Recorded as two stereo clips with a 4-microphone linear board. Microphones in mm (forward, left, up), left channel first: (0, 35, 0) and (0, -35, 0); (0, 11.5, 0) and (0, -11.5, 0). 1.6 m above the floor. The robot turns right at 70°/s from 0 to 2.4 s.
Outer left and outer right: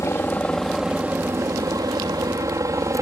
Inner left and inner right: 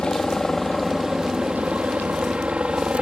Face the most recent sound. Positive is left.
turn(degrees=-55)  # may be behind; listen again after turning